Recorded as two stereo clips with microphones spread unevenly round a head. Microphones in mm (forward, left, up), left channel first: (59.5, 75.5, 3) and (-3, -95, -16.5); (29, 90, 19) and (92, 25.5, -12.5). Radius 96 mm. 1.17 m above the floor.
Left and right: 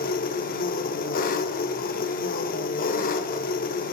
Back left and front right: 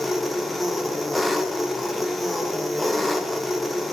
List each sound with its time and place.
0.0 s an engine running: 60° left, 1.0 m